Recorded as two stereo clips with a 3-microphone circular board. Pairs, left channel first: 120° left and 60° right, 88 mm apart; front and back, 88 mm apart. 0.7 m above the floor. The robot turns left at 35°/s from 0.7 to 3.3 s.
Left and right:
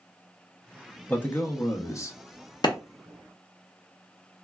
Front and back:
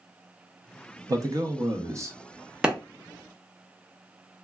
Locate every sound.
1.1 s a man speaking: straight behind, 0.6 m; by 2.2 s 145° left, 0.6 m
2.6 s a clap: 105° left, 0.6 m; by 2.8 s 100° left, 0.6 m